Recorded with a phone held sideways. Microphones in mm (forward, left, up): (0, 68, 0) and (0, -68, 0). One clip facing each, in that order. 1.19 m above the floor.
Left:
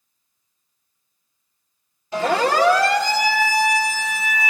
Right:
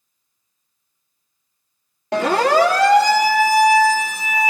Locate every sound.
2.1 s a siren: 75° right (ahead or behind), 3.5 m; by 4.5 s 45° right (ahead or behind), 4 m